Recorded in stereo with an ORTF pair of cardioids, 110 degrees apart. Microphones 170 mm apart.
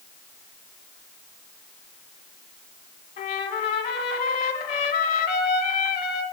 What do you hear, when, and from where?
3.2 s a trumpet: 65° left, 2 m